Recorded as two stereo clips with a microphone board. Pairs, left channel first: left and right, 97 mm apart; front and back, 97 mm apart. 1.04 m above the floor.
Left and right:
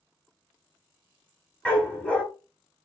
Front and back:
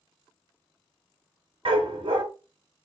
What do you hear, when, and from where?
1.6 s a dog barking: 165° left, 1.6 m